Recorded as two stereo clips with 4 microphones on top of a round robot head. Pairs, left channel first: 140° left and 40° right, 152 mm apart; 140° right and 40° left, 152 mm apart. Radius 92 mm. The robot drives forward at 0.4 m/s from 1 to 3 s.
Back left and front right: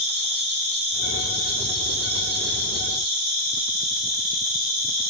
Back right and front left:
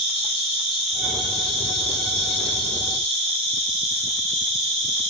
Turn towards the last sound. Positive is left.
turn(degrees=-100)